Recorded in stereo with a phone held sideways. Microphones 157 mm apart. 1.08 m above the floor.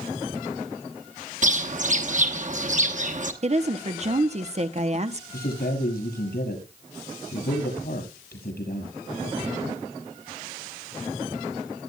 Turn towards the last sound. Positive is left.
turn(degrees=85)